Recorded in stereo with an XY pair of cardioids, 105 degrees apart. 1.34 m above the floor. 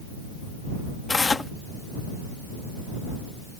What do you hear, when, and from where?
1.1 s tearing paper: 25° left